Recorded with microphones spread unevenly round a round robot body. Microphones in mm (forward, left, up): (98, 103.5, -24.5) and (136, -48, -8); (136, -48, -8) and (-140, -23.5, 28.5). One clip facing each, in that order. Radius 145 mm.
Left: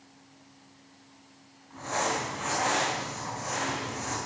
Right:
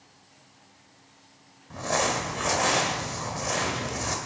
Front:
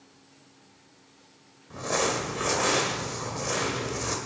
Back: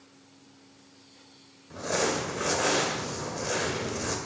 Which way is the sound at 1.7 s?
90° right.